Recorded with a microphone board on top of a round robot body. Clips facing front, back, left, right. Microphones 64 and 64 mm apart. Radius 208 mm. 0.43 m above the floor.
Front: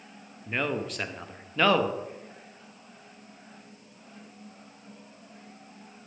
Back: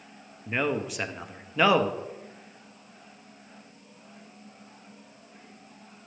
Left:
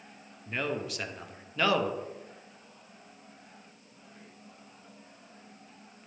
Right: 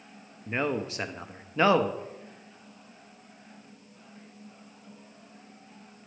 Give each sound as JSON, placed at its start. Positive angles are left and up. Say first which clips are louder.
{"t": 0.5, "sound": "a man speaking", "louder": "back 2 dB, right 4 dB", "azimuth_deg": -110, "distance_m": 0.8}